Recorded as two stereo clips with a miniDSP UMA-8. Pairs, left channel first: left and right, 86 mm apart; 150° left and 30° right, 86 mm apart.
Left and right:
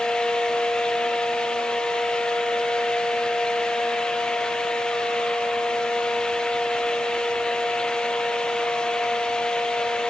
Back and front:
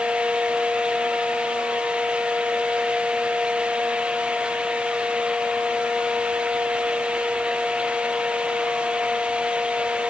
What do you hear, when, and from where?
Only background noise.